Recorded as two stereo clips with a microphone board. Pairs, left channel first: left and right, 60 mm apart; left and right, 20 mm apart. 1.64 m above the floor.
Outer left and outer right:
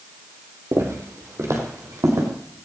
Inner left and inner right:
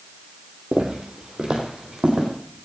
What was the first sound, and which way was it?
Footsteps, 50° right (ahead or behind).